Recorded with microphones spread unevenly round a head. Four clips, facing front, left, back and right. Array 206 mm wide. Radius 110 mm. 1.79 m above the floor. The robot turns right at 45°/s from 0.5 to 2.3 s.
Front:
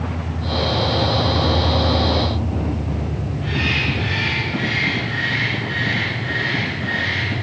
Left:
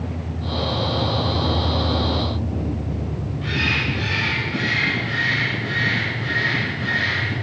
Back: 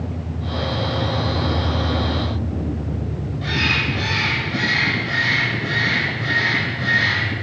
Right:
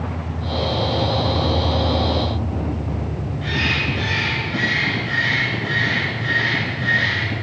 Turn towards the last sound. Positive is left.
turn(degrees=-155)